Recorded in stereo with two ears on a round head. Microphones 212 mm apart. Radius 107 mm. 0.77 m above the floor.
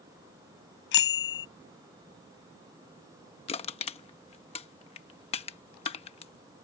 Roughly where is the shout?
I don't hear a shout.